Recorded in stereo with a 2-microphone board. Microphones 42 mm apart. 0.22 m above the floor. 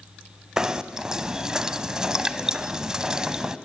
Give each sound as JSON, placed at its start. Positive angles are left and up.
{"t": 0.6, "sound": "knocking", "side_deg": -15, "distance_m": 1.1}